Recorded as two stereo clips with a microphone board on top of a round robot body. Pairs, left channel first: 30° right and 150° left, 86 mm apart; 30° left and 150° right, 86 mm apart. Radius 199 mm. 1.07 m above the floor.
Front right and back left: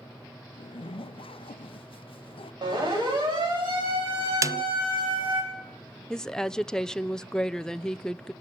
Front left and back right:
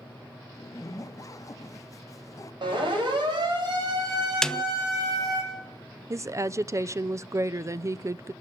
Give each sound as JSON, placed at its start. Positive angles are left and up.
{"t": 0.5, "sound": "a zipper", "azimuth_deg": -25, "distance_m": 0.9}
{"t": 2.6, "sound": "a siren", "azimuth_deg": 180, "distance_m": 9.5}
{"t": 4.4, "sound": "a snare drum", "azimuth_deg": 110, "distance_m": 0.9}
{"t": 6.1, "sound": "a woman speaking", "azimuth_deg": -110, "distance_m": 0.8}